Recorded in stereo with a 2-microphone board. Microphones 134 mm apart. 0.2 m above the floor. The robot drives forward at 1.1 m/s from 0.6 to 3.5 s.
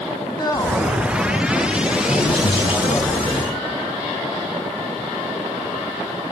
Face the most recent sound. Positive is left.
turn(degrees=35)  # may be behind; listen again after turning